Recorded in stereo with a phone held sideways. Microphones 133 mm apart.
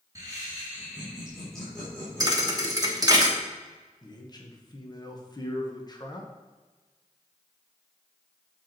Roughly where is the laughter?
Right.